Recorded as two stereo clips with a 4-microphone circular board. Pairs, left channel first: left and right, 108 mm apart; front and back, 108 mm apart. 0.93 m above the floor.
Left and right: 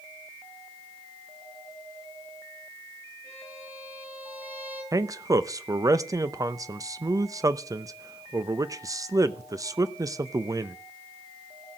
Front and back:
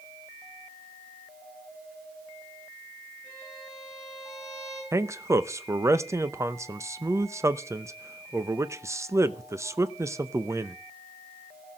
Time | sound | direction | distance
3.2 | a violin | 70° right | 9 m
4.9 | a man speaking | 130° right | 0.6 m